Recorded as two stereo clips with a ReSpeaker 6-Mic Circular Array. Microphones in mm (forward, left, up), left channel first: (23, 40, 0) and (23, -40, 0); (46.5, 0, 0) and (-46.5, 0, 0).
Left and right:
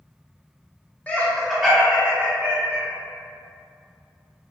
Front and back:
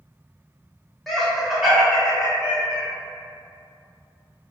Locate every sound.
1.1 s laughter: 85° left, 1.0 m; by 2.9 s 100° right, 1.3 m